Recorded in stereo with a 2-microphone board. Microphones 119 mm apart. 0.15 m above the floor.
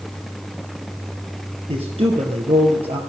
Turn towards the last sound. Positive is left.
turn(degrees=-50)  # may be behind; listen again after turning